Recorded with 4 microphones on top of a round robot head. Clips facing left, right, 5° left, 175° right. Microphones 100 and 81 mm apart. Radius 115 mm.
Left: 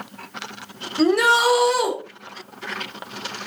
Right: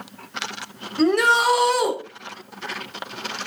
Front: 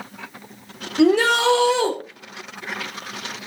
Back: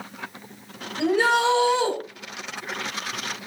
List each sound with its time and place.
1.0 s a shout: straight ahead, 4.5 m